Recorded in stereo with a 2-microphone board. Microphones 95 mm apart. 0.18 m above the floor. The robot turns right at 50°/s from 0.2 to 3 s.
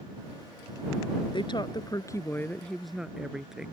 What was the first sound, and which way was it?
A woman speaking, 105° left.